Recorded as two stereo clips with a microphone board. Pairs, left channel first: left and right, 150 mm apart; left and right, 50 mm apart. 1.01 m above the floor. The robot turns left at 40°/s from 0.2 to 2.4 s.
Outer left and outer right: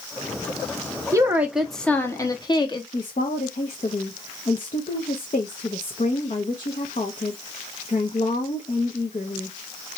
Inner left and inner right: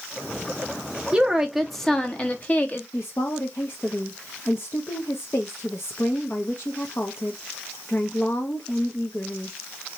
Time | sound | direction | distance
1.1 | a woman speaking | 160° right | 1.2 m
2.9 | a woman speaking | 55° left (ahead or behind) | 1.0 m